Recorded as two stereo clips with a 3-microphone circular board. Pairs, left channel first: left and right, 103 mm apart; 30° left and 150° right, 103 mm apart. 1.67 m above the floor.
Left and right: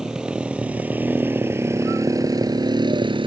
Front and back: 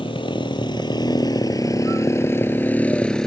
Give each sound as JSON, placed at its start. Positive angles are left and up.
{"t": 0.0, "sound": "a motorcycle", "azimuth_deg": -5}